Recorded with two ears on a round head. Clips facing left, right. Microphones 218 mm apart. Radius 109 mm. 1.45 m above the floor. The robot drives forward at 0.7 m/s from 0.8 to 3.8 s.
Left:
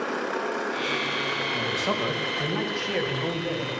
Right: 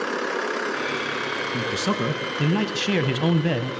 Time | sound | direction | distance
1.5 | a man speaking | 30° right (ahead or behind) | 2.0 m